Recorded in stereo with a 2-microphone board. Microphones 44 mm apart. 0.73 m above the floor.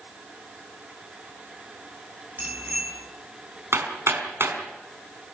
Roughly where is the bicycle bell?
Right.